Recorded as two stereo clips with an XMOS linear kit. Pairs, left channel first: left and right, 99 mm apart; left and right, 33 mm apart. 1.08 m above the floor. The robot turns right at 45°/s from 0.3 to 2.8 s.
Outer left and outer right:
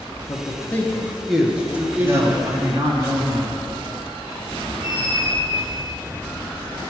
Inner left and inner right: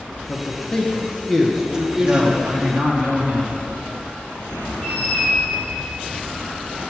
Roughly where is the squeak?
Right.